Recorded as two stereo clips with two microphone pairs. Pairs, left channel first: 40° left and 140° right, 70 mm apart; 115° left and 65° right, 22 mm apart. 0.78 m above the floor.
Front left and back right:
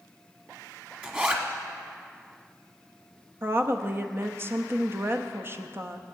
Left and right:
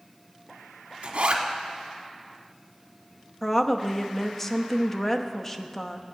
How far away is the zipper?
About 1.2 m.